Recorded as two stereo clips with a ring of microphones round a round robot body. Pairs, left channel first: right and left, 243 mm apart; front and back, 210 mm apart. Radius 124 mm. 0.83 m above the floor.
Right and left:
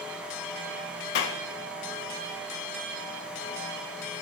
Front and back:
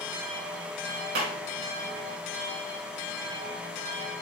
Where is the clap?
130° right, 3 m.